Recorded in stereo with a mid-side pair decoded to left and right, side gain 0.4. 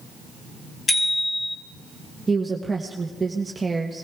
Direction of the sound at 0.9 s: 30° left.